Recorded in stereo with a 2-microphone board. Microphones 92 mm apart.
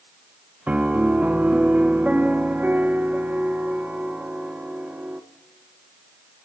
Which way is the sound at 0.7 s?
15° right (ahead or behind).